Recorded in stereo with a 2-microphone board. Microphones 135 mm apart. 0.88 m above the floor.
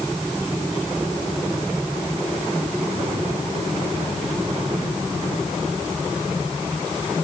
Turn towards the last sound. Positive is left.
No sound to turn to.